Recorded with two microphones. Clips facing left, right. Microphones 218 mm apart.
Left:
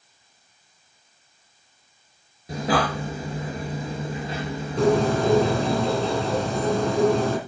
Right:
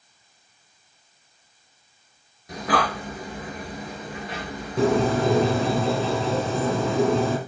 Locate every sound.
2.5 s breathing: 30° left (ahead or behind), 3 m
4.8 s a bird: centre (ahead or behind), 2.5 m